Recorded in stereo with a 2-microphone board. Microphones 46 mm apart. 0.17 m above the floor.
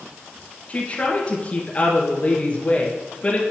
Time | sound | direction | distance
0.7 | a woman speaking | 30° left (ahead or behind) | 2.5 m